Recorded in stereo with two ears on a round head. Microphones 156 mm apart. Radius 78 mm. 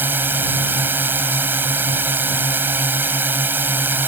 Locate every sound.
0.0 s a drone: 10° right (ahead or behind)